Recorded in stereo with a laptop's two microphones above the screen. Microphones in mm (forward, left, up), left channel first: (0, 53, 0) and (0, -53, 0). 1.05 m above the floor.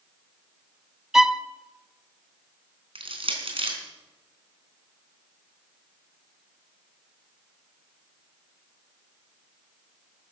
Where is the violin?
5° right (ahead or behind), 0.7 m.